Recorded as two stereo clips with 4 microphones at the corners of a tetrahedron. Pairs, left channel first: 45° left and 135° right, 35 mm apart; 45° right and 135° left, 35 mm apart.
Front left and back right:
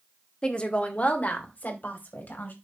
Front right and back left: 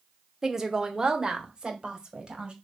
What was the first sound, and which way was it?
A woman speaking, 70° left.